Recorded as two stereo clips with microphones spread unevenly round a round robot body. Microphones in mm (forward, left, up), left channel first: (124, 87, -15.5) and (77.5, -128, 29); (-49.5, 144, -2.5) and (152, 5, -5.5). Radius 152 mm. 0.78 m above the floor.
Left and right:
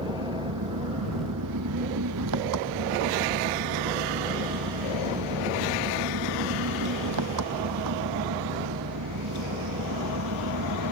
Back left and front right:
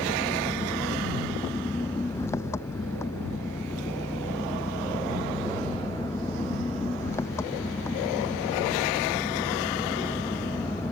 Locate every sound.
0.0 s an engine running: 130° right